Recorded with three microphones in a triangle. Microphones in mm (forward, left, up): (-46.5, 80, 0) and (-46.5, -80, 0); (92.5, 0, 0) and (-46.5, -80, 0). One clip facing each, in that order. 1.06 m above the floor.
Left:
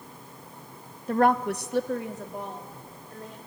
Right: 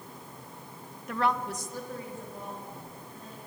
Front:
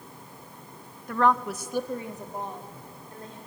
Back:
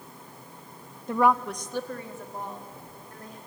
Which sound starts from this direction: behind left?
A woman speaking, at 1.1 s.